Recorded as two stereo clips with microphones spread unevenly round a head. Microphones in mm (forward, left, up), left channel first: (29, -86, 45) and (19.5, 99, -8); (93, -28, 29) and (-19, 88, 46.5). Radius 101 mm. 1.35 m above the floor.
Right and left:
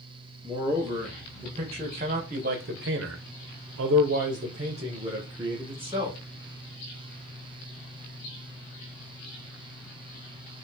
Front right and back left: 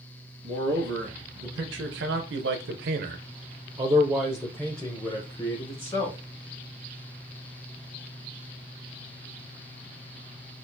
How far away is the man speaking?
About 1.7 m.